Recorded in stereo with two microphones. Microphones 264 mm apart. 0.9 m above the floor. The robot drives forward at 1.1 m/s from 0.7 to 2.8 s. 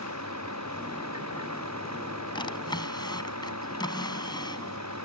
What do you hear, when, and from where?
0.0 s a vehicle: 80° right; by 5.0 s 85° right
2.4 s a drawer: 15° left (ahead or behind)